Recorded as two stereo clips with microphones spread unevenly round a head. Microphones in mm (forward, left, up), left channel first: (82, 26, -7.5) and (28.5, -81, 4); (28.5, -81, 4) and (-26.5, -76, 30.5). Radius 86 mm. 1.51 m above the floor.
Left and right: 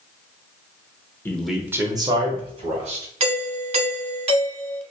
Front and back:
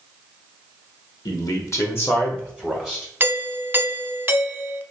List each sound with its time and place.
1.2 s a man speaking: 10° right, 1.1 m; by 3.0 s 85° right, 2.5 m
3.2 s a doorbell: 110° right, 0.7 m